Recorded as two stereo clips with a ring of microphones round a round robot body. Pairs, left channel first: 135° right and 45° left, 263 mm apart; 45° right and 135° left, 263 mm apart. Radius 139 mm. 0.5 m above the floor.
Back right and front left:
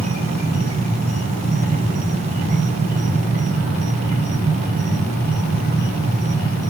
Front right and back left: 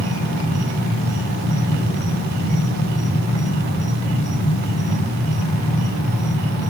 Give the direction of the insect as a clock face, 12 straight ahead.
6 o'clock.